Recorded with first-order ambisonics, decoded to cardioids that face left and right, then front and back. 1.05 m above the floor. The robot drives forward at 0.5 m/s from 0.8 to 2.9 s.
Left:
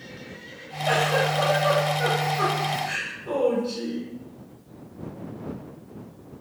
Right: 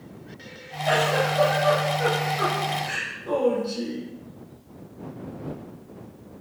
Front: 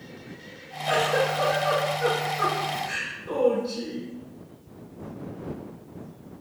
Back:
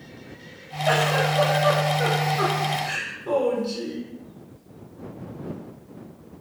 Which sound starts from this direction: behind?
A giggle, at 0.9 s.